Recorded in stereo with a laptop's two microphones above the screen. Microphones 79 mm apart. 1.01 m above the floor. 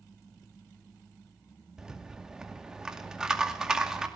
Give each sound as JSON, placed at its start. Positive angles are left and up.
{"t": 1.8, "sound": "a rattle", "side_deg": -10, "distance_m": 2.5}